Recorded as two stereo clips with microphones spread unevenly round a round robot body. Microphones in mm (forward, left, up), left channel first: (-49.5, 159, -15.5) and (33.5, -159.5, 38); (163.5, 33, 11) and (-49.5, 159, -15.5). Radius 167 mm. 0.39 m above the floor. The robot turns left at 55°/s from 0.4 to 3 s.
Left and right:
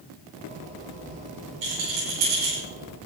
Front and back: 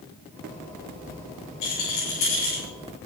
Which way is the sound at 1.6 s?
45° right.